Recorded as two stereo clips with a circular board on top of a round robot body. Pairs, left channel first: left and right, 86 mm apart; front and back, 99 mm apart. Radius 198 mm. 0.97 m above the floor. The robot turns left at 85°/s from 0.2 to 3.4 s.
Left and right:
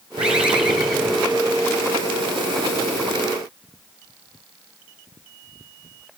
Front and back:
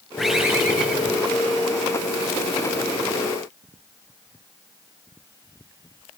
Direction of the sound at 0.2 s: 90° right.